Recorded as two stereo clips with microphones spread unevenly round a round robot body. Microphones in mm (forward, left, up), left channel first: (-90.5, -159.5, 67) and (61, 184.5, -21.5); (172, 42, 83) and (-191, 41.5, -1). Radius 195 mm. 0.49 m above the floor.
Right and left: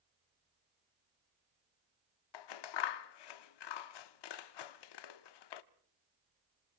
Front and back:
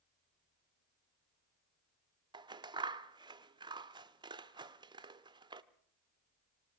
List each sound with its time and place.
2.3 s scissors: 120° right, 1.0 m